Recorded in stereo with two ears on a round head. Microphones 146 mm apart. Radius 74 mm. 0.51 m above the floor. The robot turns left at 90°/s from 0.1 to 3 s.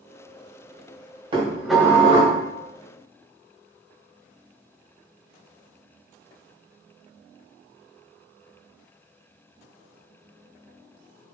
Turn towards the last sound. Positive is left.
turn(degrees=65)